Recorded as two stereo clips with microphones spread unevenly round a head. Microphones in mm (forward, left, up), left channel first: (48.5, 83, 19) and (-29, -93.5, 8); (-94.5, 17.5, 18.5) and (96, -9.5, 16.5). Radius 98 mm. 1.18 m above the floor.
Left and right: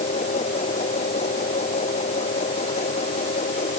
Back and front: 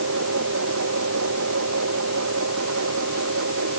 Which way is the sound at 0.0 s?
10° left.